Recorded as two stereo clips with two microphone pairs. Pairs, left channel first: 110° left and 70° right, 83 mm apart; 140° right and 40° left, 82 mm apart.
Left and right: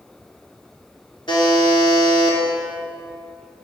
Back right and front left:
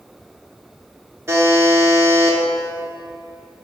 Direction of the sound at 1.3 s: 100° left.